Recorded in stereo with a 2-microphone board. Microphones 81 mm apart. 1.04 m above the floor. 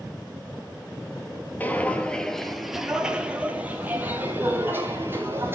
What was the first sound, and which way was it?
Footsteps, 20° left (ahead or behind).